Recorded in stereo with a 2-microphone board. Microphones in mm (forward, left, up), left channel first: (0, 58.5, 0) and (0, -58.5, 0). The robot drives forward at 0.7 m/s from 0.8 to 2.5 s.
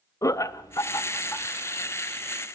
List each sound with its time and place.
0.2 s laughter: 30° left (ahead or behind), 0.8 m; by 1.5 s 20° left (ahead or behind), 1.3 m